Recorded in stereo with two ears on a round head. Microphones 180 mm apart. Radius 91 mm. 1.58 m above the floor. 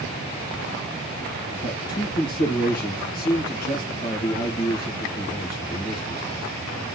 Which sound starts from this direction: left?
A man speaking, at 1.6 s.